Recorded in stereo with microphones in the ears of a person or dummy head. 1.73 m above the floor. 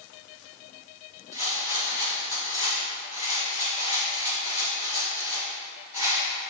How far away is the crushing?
No crushing in this recording.